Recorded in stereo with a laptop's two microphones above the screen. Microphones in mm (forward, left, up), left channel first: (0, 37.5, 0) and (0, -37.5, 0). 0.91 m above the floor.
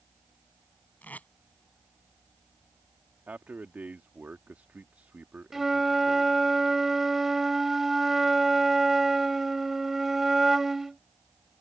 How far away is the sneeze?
No sneeze in this recording.